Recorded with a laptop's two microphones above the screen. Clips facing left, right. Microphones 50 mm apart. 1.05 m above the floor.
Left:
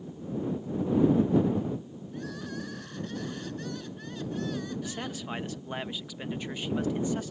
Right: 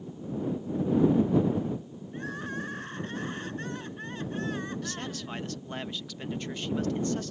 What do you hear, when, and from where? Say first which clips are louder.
2.1 s crying: right 3 dB; 35° right (ahead or behind)
4.8 s a man speaking: even; 10° left (ahead or behind)